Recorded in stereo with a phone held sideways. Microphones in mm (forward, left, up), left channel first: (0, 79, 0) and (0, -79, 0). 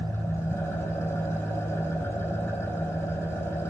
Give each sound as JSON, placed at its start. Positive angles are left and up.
{"t": 0.0, "sound": "an engine running", "side_deg": 15, "distance_m": 3.0}